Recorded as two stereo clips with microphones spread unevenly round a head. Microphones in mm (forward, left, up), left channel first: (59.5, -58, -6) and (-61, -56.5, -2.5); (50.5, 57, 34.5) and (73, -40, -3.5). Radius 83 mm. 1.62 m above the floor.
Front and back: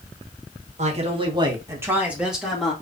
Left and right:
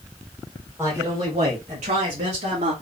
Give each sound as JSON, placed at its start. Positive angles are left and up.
{"t": 0.8, "sound": "a man speaking", "azimuth_deg": -160, "distance_m": 1.7}